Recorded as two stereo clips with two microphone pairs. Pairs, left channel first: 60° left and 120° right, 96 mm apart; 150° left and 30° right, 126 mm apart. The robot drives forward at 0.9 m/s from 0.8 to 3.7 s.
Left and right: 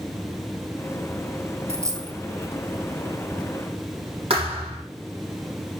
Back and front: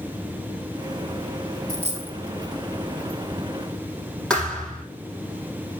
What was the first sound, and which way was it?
A dropped coin, 60° right.